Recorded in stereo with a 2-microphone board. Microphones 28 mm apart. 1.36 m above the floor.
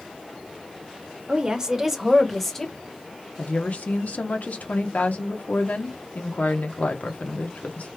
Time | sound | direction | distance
1.3 | a woman speaking | 30° right (ahead or behind) | 1.0 m
3.4 | a woman speaking | 70° left (ahead or behind) | 0.9 m